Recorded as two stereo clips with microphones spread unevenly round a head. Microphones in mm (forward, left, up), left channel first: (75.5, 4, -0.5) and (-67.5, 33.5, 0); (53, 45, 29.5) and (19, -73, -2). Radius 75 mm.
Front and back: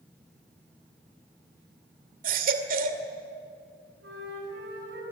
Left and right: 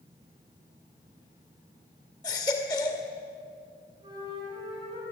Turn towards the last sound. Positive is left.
turn(degrees=-170)